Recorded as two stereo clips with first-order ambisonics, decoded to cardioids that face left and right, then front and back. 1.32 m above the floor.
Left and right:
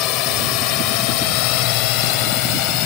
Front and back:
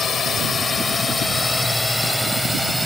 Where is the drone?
65° left; by 2.9 s 90° left.